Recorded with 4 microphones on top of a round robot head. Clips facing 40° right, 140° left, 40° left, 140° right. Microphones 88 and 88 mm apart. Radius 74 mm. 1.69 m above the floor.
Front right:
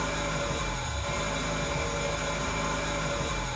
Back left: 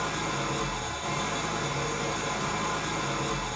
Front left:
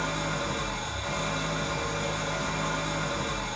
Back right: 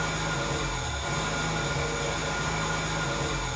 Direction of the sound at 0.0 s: 160° left.